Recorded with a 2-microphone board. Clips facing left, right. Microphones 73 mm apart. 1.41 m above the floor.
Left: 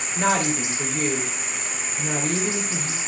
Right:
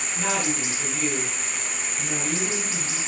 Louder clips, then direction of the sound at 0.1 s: Left 5 dB; 50° left (ahead or behind).